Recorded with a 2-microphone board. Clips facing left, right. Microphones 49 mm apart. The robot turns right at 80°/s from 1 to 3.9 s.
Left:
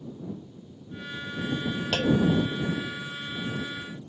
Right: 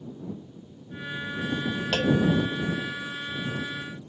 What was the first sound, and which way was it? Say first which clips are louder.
A clunk: even; 10° right (ahead or behind).